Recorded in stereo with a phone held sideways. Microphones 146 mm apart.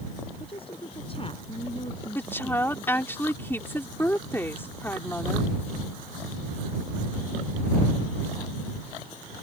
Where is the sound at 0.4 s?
40° left (ahead or behind).